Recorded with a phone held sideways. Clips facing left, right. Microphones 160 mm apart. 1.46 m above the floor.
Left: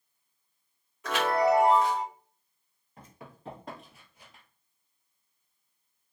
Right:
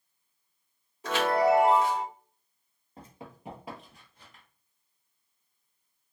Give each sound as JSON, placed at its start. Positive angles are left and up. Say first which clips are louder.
{"t": 1.0, "sound": "a chime", "louder": "right 1 dB", "side_deg": -35, "distance_m": 2.0}
{"t": 3.0, "sound": "running footsteps", "louder": "right 3 dB", "side_deg": -35, "distance_m": 1.9}